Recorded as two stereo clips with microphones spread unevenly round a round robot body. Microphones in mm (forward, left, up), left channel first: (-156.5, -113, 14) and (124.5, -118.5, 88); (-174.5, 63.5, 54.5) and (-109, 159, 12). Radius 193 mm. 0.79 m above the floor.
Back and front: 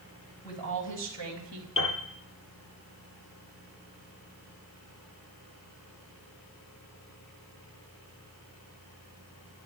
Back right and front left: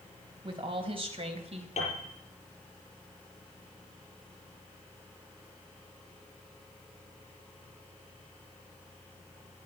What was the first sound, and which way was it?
A woman speaking, 105° left.